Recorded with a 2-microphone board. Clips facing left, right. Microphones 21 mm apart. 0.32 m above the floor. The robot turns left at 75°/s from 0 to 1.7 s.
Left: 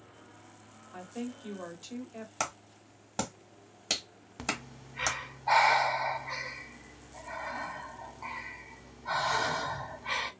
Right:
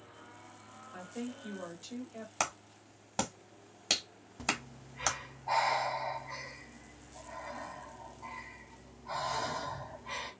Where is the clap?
10° right (ahead or behind), 0.9 m.